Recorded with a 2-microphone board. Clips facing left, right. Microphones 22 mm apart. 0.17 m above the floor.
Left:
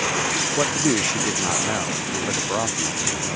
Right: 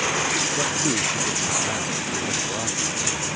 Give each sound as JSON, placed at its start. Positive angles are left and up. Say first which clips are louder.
{"t": 0.6, "sound": "a man speaking", "louder": "left 2 dB", "side_deg": 35}